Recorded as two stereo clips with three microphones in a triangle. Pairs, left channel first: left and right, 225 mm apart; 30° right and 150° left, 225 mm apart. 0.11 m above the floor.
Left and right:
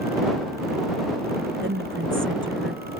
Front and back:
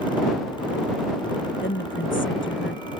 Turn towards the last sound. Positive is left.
turn(degrees=-60)